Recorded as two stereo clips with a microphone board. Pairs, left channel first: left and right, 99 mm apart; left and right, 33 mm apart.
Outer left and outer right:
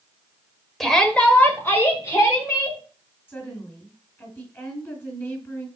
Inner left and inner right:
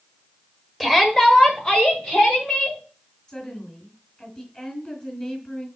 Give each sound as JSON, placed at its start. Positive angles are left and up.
{"t": 0.8, "sound": "a shout", "side_deg": 0, "distance_m": 1.5}
{"t": 3.3, "sound": "a woman speaking", "side_deg": 20, "distance_m": 3.0}